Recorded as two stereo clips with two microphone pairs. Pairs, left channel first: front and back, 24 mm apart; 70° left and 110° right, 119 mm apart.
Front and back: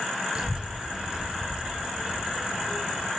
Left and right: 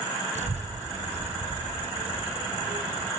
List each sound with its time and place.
0.3 s a child speaking: 120° right, 4 m; by 3.1 s 140° right, 5.5 m